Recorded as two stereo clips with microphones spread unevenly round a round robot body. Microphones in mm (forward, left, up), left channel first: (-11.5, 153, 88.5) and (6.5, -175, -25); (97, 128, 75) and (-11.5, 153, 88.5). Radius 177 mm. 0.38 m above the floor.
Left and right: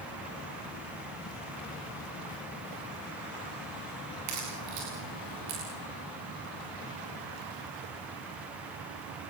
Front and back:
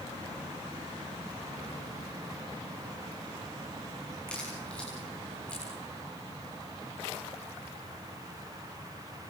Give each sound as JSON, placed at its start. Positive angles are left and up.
{"t": 4.3, "sound": "a crack", "azimuth_deg": -115, "distance_m": 9.5}